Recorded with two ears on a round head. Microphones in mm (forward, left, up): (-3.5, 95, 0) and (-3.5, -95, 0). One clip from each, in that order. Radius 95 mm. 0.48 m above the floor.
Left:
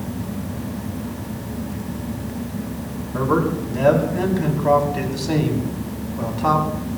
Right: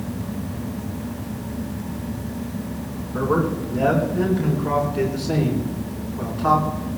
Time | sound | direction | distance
3.1 | a man speaking | 75° left (ahead or behind) | 4 m